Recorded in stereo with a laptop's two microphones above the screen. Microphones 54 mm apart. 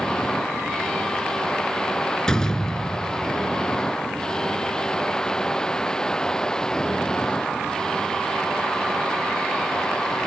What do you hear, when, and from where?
0.0 s a machine running: 10° left (ahead or behind)
2.3 s a door slam: 10° left (ahead or behind)